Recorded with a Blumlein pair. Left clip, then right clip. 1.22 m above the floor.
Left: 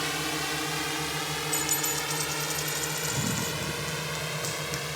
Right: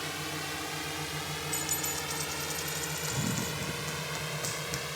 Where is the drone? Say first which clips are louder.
Left 6 dB; 20° left; by 5.0 s 10° left.